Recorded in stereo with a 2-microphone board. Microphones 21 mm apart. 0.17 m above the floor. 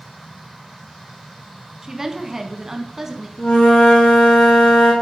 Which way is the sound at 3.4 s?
60° left (ahead or behind).